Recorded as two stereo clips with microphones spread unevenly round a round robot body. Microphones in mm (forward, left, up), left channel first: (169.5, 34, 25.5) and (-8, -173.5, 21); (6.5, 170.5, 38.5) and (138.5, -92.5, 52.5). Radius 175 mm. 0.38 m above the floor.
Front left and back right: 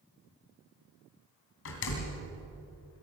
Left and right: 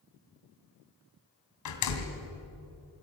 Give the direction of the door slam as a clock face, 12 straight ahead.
9 o'clock.